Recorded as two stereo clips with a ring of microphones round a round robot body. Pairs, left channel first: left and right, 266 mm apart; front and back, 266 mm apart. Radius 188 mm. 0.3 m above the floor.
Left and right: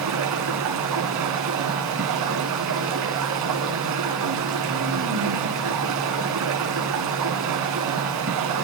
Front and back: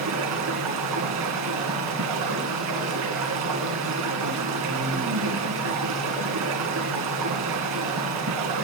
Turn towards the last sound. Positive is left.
turn(degrees=-135)